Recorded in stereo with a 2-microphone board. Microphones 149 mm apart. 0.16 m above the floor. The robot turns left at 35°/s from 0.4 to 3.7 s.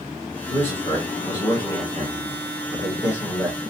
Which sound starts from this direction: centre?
A man speaking, at 0.5 s.